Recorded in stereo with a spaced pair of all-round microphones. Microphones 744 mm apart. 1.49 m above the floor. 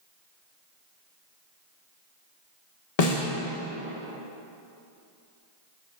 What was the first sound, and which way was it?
A snare drum, 55° left (ahead or behind).